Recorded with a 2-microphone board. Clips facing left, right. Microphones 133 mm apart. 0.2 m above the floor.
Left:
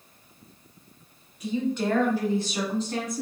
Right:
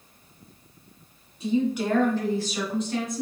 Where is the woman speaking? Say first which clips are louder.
Right 2 dB; 30° right (ahead or behind), 1.2 m; by 3.2 s 45° left (ahead or behind), 1.7 m.